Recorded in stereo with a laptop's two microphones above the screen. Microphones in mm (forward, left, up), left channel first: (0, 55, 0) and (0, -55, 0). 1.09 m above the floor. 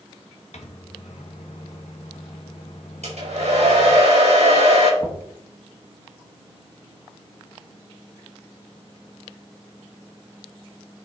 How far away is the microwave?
About 1.1 m.